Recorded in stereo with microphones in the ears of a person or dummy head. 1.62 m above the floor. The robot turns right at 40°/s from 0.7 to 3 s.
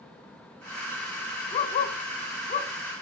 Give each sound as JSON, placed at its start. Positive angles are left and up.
{"t": 1.5, "sound": "a dog barking", "side_deg": 30, "distance_m": 1.5}